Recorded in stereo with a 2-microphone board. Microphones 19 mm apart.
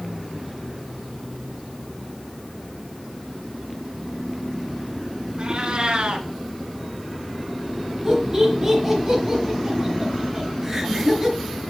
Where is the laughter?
30° right (ahead or behind), 3.5 m.